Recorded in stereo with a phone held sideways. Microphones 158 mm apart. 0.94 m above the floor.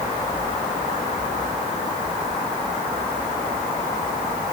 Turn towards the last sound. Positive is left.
No sound to turn to.